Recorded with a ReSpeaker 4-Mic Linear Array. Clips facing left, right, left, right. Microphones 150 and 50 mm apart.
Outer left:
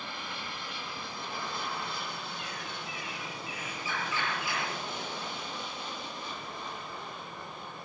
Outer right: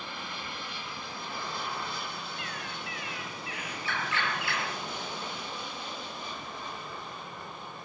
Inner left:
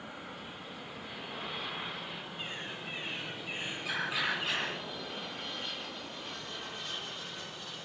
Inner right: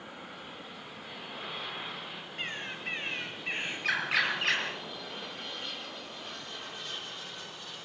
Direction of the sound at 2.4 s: 70° right (ahead or behind).